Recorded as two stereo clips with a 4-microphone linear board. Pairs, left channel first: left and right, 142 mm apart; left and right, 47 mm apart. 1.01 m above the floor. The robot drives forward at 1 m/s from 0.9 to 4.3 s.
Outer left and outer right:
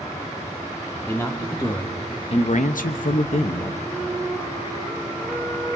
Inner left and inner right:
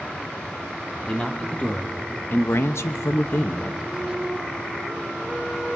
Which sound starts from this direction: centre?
A man speaking, at 1.1 s.